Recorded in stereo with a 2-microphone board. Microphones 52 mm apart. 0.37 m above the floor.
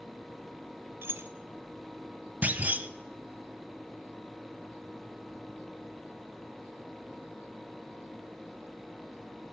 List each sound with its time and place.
1.0 s keys jangling: 50° right (ahead or behind), 0.8 m
2.4 s a clunk: 30° right (ahead or behind), 0.6 m